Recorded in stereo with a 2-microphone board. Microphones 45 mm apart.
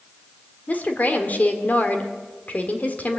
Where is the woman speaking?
35° left (ahead or behind), 1.9 m.